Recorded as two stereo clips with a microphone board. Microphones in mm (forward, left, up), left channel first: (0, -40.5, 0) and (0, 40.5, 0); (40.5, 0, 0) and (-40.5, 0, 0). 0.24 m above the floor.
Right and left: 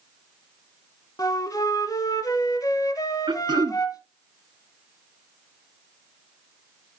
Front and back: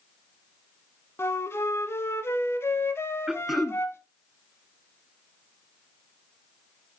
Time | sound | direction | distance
1.2 | a flute | 55° right | 0.8 m
3.3 | throat clearing | 95° left | 0.5 m